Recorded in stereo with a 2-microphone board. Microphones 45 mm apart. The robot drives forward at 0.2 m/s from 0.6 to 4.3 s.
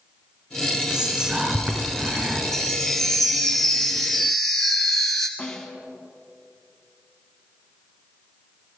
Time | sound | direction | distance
0.9 | whispering | 20° right (ahead or behind) | 2 m
2.5 | a chime | 10° left (ahead or behind) | 1.1 m
5.4 | a snare drum | 10° left (ahead or behind) | 1.4 m